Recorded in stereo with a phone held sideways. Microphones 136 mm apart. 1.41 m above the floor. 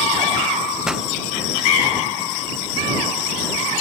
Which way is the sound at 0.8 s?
5° right (ahead or behind).